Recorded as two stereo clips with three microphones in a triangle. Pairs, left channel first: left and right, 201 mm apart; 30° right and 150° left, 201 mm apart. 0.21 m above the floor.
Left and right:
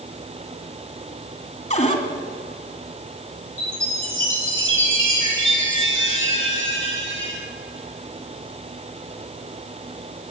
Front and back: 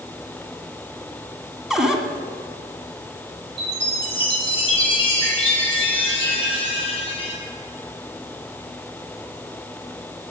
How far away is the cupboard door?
About 1.9 m.